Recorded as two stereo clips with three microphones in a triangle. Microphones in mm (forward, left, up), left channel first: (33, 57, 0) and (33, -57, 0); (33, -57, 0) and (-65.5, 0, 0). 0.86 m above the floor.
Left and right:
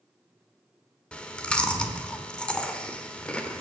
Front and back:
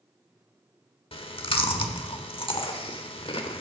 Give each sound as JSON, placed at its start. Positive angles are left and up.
{"t": 1.1, "sound": "chewing", "azimuth_deg": 10, "distance_m": 1.2}